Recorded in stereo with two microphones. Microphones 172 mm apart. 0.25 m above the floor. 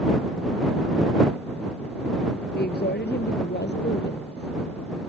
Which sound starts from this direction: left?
A woman speaking, at 2.5 s.